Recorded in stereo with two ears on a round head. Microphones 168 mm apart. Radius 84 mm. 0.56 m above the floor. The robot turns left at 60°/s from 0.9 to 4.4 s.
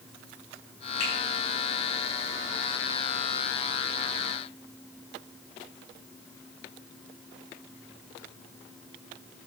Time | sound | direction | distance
1.0 | a finger snap | 55° left (ahead or behind) | 4.5 m